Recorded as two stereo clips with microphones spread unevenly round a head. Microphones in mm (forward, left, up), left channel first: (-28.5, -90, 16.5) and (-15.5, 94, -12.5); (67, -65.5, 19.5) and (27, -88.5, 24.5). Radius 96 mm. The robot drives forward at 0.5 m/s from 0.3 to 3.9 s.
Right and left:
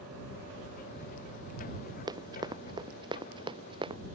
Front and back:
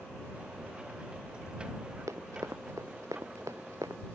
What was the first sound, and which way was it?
Running footsteps, 155° left.